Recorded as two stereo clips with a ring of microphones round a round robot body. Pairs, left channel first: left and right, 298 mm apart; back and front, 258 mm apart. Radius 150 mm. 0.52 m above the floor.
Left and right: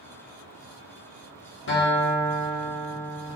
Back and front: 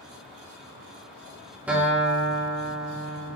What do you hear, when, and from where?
1.7 s a guitar: 80° left, 1.3 m